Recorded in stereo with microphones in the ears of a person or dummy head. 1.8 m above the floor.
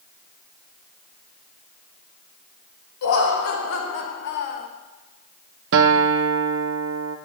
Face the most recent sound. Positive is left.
turn(degrees=-70)  # may be behind; listen again after turning